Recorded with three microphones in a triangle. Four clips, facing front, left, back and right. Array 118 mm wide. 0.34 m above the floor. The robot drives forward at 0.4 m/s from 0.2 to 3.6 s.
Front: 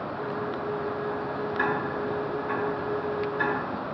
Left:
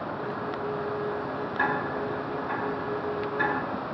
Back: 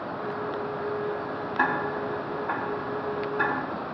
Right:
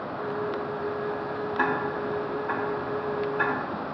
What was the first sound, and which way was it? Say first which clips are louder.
Ticking: right 1 dB, back 3 dB; 150° right.